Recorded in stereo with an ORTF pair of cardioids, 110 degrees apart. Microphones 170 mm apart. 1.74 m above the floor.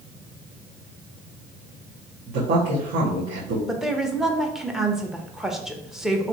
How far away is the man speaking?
About 1.5 m.